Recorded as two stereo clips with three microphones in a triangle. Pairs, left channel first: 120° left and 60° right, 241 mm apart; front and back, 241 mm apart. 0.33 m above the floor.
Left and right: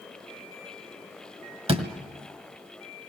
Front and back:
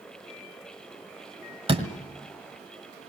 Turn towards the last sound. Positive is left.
turn(degrees=-115)